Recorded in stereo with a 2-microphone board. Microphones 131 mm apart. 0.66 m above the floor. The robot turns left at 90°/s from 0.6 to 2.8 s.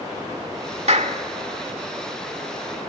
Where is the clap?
60° right (ahead or behind), 1.6 m; by 1.2 s 70° right (ahead or behind), 1.6 m.